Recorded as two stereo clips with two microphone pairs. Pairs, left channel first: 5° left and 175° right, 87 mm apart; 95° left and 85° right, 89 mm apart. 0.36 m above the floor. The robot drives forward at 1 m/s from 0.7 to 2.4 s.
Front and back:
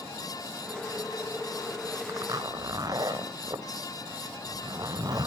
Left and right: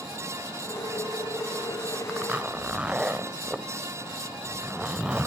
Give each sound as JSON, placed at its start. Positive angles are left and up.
{"t": 2.1, "sound": "a zipper", "azimuth_deg": -150, "distance_m": 1.0}